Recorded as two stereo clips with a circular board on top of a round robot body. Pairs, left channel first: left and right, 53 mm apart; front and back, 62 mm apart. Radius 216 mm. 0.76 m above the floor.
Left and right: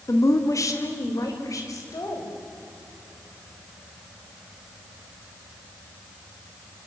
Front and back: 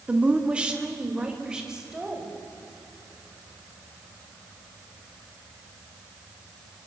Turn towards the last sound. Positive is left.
turn(degrees=100)